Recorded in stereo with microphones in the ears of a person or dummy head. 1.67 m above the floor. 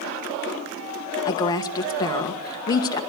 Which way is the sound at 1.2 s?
20° left (ahead or behind).